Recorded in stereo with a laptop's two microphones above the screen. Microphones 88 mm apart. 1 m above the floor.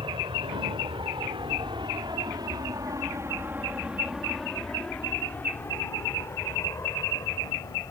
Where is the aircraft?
75° right (ahead or behind); by 7.9 s 40° left (ahead or behind).